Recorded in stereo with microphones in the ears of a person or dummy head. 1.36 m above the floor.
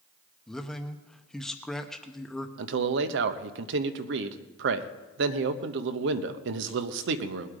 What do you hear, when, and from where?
0.5 s a man speaking: 5° left (ahead or behind), 0.8 m
2.6 s a man speaking: 65° right (ahead or behind), 0.9 m